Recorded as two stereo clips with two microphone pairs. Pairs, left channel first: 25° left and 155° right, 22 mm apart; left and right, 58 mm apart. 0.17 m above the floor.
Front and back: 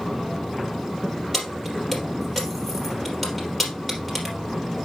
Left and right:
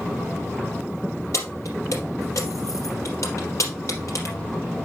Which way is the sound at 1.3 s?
105° left.